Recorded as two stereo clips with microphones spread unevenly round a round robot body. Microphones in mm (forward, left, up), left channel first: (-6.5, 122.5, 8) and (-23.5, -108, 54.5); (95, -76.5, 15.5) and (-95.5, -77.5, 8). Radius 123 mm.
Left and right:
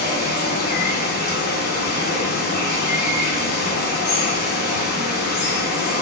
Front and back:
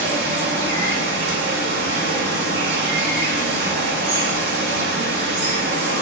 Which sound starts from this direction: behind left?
Running water, at 0.0 s.